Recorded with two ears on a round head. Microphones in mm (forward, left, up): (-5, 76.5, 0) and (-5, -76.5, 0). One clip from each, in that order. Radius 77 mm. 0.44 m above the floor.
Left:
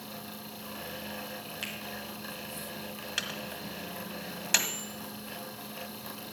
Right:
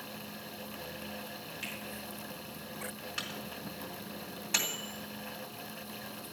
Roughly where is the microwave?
Left.